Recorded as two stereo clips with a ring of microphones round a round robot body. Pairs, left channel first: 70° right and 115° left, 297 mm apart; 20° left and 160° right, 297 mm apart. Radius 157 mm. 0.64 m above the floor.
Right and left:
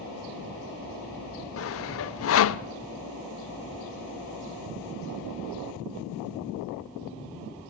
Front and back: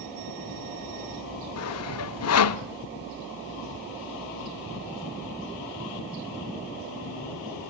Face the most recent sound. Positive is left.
turn(degrees=-20)